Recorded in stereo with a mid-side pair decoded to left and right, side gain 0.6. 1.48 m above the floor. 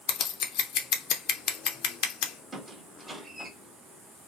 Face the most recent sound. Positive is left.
turn(degrees=-20)